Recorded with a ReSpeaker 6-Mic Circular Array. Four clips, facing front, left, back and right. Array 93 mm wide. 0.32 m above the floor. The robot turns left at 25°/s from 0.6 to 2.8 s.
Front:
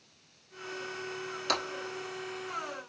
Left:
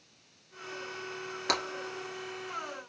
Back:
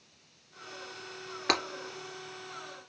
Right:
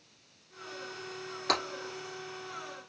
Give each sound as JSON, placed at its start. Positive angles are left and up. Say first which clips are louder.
{"t": 1.5, "sound": "breaking glass", "louder": "right 1 dB, back 2 dB", "azimuth_deg": 170, "distance_m": 2.0}